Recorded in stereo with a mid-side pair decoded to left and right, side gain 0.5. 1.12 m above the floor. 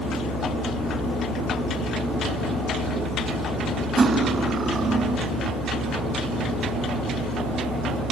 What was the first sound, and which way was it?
Cutlery clinking, 40° right.